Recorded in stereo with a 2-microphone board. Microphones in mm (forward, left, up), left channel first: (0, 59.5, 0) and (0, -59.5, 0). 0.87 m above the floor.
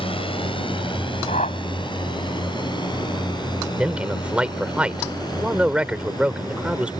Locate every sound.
0.0 s a drone: 50° left (ahead or behind); by 7.0 s 35° left (ahead or behind)
1.3 s a whoosh: 85° left
3.8 s a man speaking: 10° right (ahead or behind)